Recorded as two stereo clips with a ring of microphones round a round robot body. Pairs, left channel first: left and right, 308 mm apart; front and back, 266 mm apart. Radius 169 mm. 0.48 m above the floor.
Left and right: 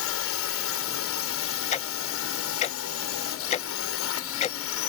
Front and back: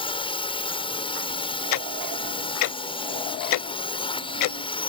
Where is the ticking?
20° left.